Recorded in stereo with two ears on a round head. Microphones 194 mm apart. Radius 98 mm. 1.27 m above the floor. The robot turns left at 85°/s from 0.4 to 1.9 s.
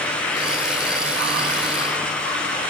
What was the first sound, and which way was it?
Only background noise.